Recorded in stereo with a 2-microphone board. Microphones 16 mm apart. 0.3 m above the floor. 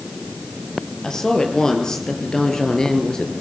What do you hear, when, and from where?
1.0 s a woman speaking: 45° left (ahead or behind), 5.5 m